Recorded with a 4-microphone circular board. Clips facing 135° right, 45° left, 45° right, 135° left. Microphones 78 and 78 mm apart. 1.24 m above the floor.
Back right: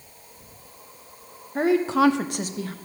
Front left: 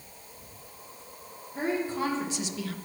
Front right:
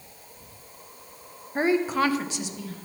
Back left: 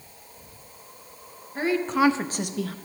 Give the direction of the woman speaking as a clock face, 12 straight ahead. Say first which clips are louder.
Back right 10 dB, even; 3 o'clock.